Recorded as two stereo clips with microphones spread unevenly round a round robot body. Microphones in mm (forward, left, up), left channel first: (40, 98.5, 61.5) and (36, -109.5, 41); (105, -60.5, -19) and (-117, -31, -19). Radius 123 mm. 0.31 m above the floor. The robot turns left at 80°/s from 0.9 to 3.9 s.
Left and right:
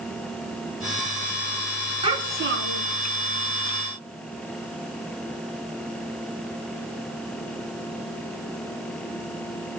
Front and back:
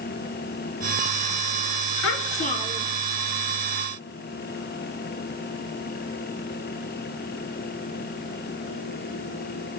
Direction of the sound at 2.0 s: 25° right.